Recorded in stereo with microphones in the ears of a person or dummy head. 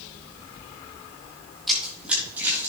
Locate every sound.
1.7 s running footsteps: centre (ahead or behind), 3.5 m; by 2.7 s 10° right (ahead or behind), 3 m